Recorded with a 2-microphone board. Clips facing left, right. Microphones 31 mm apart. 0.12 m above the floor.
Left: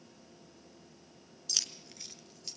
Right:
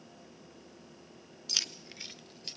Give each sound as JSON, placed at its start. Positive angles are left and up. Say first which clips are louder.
{"t": 1.5, "sound": "keys jangling", "louder": "right 2 dB", "side_deg": -20, "distance_m": 0.9}